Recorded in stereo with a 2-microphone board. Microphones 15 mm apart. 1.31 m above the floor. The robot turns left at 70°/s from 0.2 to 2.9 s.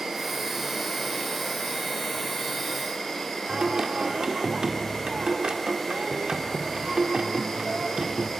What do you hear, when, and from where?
0.0 s an insect: 145° right, 6 m; by 8.4 s 25° left, 6 m
3.5 s singing: 60° right (ahead or behind), 1.4 m